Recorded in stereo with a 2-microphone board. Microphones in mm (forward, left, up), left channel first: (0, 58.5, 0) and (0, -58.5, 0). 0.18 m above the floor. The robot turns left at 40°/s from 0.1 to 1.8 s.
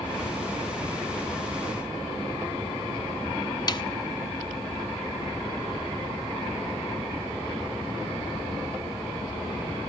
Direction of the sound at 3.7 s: 40° left (ahead or behind).